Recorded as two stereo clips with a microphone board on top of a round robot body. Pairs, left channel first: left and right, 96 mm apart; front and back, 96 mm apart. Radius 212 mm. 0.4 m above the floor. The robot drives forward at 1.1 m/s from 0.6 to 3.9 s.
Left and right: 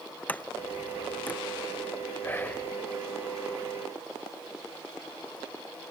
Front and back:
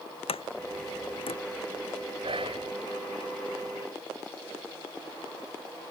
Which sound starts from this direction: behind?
Whispering, at 2.2 s.